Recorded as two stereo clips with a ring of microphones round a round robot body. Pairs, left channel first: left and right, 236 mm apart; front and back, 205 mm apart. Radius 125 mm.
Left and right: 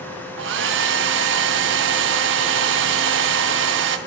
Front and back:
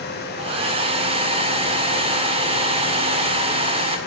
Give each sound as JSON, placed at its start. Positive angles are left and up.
{"t": 0.4, "sound": "a hair dryer", "azimuth_deg": -115, "distance_m": 0.7}